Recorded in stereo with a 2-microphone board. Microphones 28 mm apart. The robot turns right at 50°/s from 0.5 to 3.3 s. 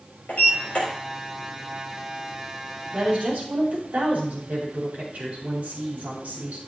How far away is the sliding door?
About 4 m.